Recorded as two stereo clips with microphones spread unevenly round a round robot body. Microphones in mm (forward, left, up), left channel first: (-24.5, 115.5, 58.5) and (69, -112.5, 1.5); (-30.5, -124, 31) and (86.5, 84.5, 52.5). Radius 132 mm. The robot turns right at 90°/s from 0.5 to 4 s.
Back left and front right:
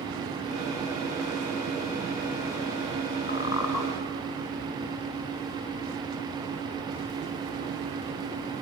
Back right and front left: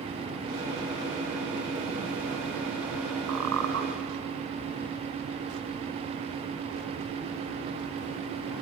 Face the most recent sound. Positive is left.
turn(degrees=130)